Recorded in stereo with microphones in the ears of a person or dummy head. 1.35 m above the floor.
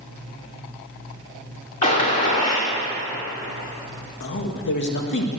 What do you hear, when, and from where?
1.8 s a gunshot: 40° left (ahead or behind), 2.5 m
4.2 s a man speaking: 65° left (ahead or behind), 1.6 m